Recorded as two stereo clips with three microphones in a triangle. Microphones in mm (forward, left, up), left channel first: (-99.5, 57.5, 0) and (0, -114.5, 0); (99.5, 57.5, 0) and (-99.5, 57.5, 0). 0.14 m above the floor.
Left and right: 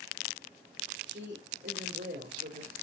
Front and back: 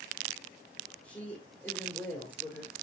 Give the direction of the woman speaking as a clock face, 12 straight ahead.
3 o'clock.